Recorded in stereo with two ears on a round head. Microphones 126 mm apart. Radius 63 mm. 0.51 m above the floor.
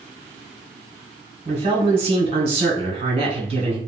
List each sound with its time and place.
1.4 s a man speaking: 40° right (ahead or behind), 1.4 m